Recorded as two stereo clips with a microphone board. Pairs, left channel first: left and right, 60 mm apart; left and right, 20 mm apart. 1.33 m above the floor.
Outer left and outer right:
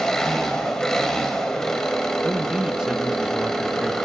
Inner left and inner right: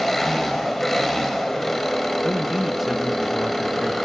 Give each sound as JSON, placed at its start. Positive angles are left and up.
{"t": 0.0, "sound": "an engine running", "side_deg": 10, "distance_m": 5.0}
{"t": 2.2, "sound": "a man speaking", "side_deg": -15, "distance_m": 1.5}